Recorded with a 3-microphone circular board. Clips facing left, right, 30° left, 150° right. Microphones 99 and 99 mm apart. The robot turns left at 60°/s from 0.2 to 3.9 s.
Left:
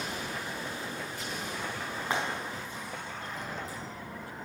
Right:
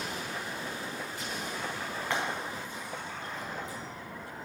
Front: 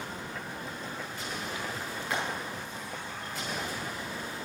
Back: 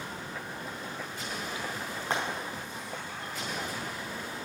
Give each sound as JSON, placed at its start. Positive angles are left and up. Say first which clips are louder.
{"t": 2.1, "sound": "frying", "louder": "left 1 dB, back 1 dB", "azimuth_deg": 165, "distance_m": 5.0}